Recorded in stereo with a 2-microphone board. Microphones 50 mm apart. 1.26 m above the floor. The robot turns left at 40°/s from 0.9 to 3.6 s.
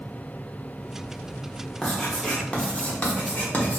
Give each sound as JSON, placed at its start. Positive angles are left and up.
{"t": 1.8, "sound": "writing", "side_deg": 15, "distance_m": 0.9}